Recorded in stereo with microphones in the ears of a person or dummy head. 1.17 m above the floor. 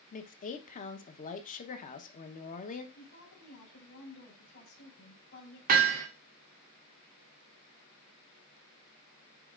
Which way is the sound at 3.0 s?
65° left (ahead or behind).